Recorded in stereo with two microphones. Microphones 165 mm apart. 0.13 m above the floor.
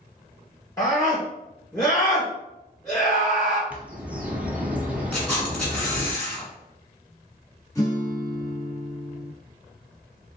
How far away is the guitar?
About 1.7 m.